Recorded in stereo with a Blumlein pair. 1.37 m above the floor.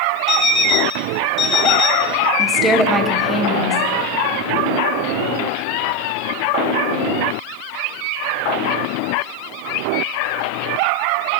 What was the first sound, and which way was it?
An alarm clock, 25° left.